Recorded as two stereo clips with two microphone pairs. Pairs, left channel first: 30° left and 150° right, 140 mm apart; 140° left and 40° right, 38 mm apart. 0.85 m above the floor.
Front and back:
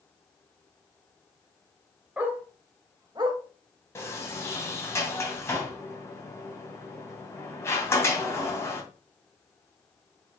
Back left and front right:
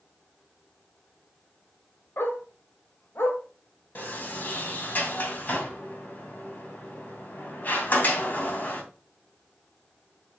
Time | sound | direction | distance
2.2 | a dog barking | 130° left | 1.9 m
4.0 | a sliding door | 105° left | 2.5 m